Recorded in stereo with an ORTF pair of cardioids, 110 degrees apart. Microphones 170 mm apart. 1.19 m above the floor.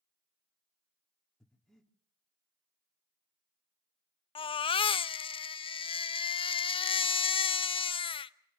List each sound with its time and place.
1.4 s breathing: 5° left, 3 m
4.3 s a baby crying: 30° left, 0.8 m